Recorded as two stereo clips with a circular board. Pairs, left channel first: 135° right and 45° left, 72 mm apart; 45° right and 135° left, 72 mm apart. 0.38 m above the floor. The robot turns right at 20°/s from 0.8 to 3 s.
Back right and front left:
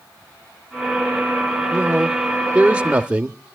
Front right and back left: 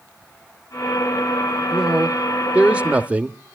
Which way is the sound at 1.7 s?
70° left.